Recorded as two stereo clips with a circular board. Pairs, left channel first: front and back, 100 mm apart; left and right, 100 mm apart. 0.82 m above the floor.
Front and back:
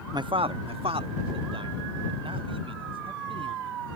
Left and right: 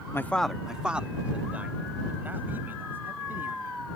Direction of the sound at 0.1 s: 145° left.